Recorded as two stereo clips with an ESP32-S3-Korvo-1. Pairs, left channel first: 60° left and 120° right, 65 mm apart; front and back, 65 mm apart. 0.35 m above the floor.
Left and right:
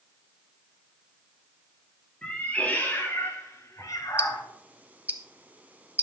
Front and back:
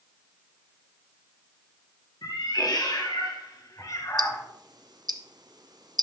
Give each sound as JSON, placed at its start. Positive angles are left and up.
{"t": 2.2, "sound": "a cat meowing", "azimuth_deg": -15, "distance_m": 3.0}
{"t": 4.2, "sound": "ticking", "azimuth_deg": 175, "distance_m": 0.8}